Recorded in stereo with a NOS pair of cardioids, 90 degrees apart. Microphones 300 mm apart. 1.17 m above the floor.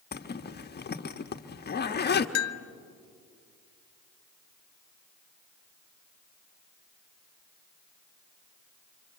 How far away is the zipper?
About 1.3 m.